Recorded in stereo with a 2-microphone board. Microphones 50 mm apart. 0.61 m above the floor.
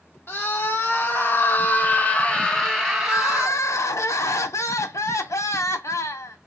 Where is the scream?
50° left (ahead or behind), 1.4 m; by 3.6 s 10° right (ahead or behind), 1.1 m.